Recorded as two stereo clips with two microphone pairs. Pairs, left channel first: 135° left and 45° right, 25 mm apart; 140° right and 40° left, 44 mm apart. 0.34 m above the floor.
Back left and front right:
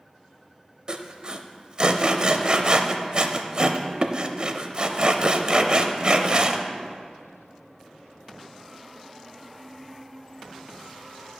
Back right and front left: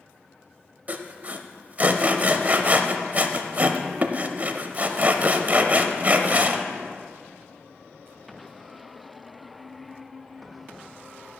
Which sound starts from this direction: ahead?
Sawing, at 0.9 s.